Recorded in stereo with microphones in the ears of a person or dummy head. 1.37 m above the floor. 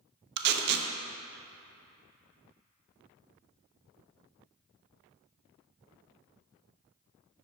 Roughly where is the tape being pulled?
Right.